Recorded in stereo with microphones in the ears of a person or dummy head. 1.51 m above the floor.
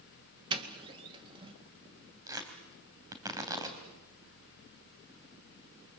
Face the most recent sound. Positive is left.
turn(degrees=-15)  # may be behind; listen again after turning